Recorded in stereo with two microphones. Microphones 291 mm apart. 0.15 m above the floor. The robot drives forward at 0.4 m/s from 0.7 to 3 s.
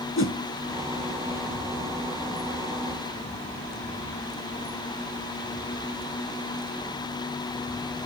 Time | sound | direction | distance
0.2 | a whoosh | 45° left (ahead or behind) | 0.8 m